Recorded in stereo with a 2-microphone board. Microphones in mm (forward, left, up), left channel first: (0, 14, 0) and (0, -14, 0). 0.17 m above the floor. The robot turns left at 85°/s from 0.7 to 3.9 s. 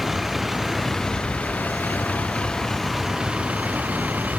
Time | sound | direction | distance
0.0 | a vehicle | 170° right | ?